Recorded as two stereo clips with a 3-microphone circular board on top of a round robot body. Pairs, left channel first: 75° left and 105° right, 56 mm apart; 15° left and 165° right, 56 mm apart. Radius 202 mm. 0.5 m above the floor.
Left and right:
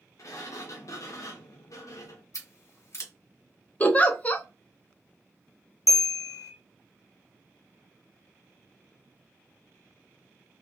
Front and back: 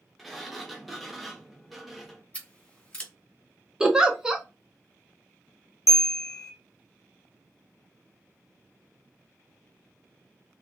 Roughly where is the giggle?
Behind left.